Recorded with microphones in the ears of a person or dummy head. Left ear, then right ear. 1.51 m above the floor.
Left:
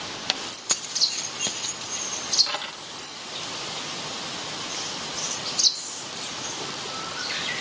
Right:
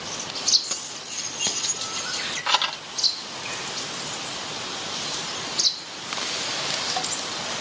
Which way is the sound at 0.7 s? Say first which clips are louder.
Left 8 dB; 35° left (ahead or behind).